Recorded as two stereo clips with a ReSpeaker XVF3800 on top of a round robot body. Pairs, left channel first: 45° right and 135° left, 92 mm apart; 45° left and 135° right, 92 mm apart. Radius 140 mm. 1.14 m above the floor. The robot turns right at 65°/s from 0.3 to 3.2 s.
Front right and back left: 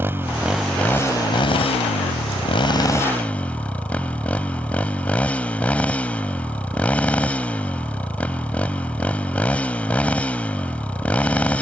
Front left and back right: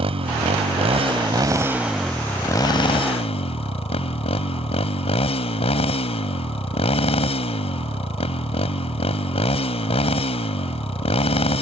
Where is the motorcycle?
155° right; by 11.6 s 30° left.